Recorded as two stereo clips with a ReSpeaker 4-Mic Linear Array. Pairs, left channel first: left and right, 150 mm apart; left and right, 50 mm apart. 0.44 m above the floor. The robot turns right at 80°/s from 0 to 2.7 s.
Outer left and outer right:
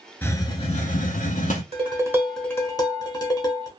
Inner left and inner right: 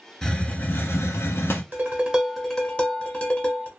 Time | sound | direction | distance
0.2 | a hiss | 15° left | 0.6 m
1.7 | dishes clattering | 50° right | 0.9 m